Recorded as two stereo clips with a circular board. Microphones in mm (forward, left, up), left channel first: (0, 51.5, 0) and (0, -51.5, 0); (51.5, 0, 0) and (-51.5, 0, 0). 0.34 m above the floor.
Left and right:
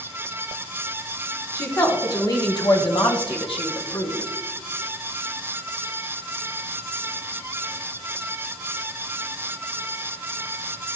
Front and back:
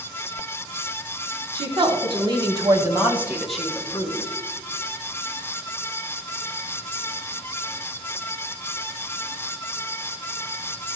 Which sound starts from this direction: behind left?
A woman speaking, at 1.6 s.